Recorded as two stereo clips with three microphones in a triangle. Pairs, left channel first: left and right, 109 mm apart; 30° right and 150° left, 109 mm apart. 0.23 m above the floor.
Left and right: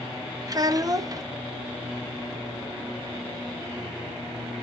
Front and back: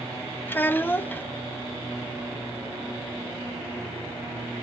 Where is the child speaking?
90° right, 0.7 m.